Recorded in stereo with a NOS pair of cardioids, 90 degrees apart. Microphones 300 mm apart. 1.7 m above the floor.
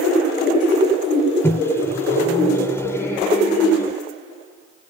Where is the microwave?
10° left.